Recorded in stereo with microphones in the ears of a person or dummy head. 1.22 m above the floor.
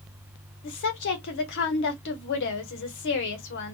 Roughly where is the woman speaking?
Left.